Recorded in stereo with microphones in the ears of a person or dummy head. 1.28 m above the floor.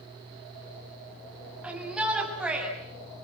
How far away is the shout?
About 7 m.